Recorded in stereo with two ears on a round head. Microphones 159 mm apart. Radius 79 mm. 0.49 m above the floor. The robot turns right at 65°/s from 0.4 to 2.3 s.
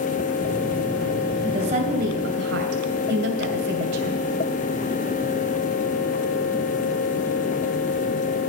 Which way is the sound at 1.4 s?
155° right.